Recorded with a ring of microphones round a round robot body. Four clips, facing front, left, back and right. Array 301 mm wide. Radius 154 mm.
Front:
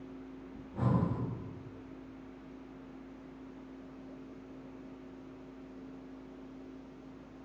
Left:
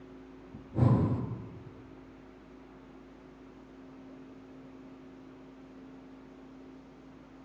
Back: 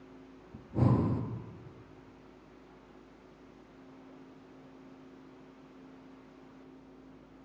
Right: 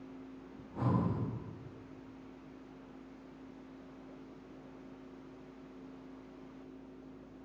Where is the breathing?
140° left, 1.3 m.